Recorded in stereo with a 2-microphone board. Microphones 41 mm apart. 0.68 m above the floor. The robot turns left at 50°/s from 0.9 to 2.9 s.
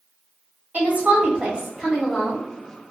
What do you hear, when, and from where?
0.7 s a woman speaking: 130° right, 1.5 m; by 2.4 s 155° left, 1.5 m